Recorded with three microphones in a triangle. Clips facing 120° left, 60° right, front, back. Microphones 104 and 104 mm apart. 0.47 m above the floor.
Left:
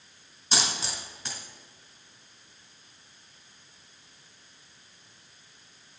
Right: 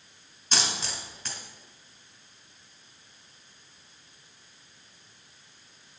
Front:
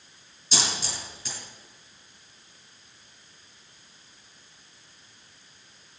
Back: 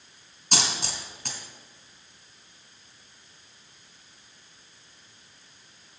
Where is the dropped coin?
155° right, 2.5 m.